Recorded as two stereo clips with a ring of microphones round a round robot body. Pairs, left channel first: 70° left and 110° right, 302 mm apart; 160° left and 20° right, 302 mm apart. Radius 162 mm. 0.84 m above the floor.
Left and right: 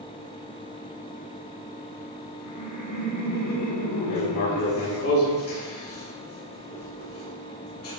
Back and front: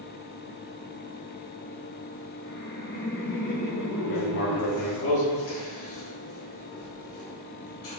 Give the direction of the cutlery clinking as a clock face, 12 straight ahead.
No cutlery clinking in this recording.